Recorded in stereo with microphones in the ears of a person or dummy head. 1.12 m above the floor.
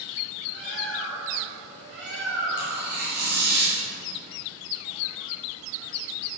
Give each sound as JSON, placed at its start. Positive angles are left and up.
{"t": 0.5, "sound": "a bird", "side_deg": -70, "distance_m": 6.0}
{"t": 2.6, "sound": "tearing paper", "side_deg": -55, "distance_m": 5.5}